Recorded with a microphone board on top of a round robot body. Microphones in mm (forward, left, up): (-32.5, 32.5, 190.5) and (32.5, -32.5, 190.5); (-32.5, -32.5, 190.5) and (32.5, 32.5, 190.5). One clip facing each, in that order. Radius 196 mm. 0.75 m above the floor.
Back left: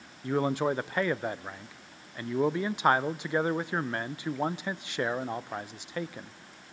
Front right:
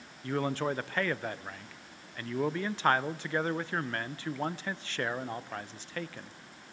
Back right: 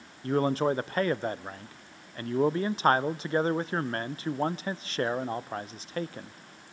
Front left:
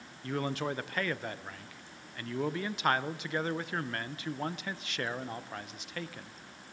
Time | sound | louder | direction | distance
0.2 | a man speaking | back left 4 dB, back right 8 dB | 160° right | 0.6 m